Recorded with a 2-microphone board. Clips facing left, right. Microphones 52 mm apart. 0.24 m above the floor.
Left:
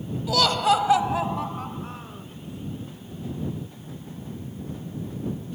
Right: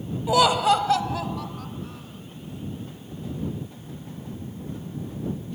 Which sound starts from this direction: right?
Laughter, at 0.3 s.